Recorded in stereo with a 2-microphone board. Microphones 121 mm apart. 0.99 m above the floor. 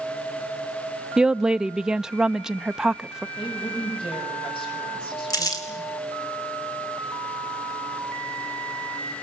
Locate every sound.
1.2 s a woman speaking: 5° right (ahead or behind), 0.5 m
3.4 s a woman speaking: 45° left (ahead or behind), 7 m
5.3 s crumpling: 30° left (ahead or behind), 3.5 m